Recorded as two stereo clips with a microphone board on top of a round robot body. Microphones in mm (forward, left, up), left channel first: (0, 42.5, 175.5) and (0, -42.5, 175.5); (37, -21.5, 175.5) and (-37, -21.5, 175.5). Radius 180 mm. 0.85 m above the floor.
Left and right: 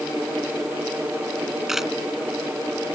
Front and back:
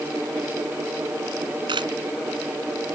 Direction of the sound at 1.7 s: 175° right.